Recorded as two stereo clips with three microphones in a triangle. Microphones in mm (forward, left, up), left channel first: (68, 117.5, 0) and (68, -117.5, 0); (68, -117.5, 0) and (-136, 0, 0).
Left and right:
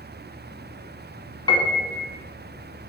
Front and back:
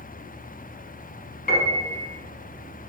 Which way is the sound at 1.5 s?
20° left.